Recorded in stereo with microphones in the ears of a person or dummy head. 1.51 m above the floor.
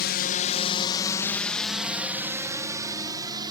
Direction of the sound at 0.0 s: 50° left (ahead or behind).